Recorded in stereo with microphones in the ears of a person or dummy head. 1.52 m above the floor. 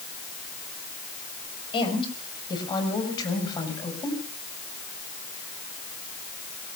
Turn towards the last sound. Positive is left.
turn(degrees=25)  # may be behind; listen again after turning